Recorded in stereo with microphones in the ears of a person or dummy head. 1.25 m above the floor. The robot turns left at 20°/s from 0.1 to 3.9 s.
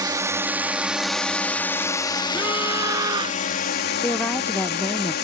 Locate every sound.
0.0 s a drone: 160° right; by 5.2 s 125° left
2.3 s a scream: 5° right (ahead or behind); by 3.4 s 25° right (ahead or behind)
4.0 s a woman speaking: 10° left (ahead or behind)